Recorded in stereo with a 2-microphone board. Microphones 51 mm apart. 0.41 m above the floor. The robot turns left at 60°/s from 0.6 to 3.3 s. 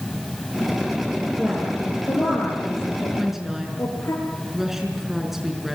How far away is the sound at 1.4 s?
About 6.5 m.